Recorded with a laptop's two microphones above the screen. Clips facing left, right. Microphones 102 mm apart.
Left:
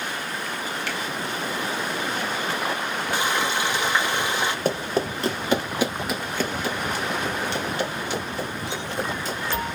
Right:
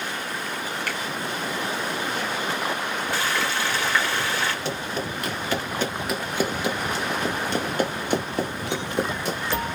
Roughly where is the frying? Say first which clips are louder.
Left 3 dB; centre.